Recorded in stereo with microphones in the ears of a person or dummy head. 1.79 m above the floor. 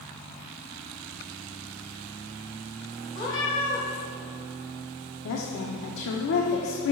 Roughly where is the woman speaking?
Left.